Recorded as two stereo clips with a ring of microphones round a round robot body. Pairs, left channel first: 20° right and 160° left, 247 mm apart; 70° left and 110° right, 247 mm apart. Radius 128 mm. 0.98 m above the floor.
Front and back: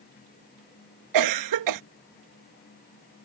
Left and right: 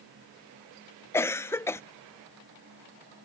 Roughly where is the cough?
Behind left.